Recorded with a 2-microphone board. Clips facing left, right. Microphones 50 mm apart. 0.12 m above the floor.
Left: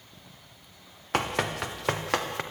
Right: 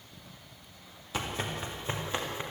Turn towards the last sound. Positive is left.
turn(degrees=75)  # may be behind; listen again after turning